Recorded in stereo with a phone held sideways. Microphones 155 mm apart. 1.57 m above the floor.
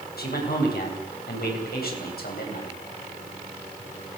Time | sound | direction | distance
0.2 | a man speaking | 90° left | 10 m